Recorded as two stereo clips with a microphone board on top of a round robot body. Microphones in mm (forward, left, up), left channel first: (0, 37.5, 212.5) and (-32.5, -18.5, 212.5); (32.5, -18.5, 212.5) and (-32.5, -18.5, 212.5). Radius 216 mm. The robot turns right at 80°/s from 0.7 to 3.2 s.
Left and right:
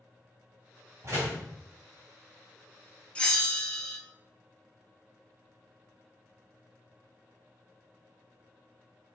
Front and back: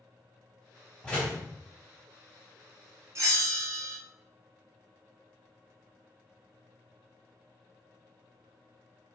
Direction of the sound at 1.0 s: 75° right.